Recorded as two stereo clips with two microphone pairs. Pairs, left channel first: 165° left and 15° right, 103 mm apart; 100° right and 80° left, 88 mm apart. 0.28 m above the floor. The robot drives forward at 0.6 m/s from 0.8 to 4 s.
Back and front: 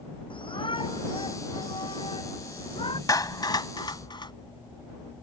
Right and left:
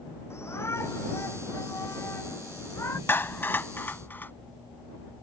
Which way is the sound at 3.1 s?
160° right.